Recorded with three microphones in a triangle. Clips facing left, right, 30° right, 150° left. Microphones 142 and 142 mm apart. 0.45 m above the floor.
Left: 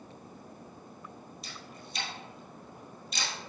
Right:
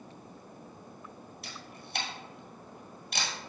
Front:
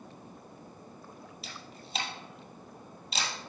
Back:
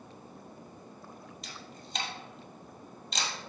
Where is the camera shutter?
115° right, 1.9 m.